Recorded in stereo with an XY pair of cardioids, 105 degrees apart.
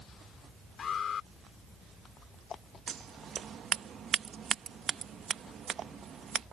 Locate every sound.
0.8 s an alarm: 55° left
2.9 s scissors: 50° right